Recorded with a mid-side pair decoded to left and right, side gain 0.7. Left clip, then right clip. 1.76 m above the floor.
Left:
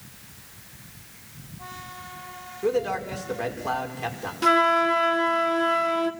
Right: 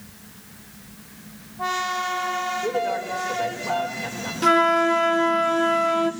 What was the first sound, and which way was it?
A man speaking, 30° left.